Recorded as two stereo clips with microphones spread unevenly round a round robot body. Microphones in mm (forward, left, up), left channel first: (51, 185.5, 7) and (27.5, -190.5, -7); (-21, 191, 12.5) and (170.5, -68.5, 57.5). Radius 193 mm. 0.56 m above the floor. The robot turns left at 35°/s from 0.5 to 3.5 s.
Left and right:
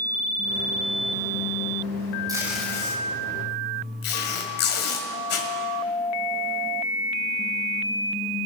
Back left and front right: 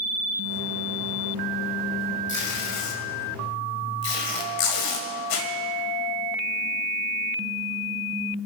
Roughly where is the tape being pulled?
Behind.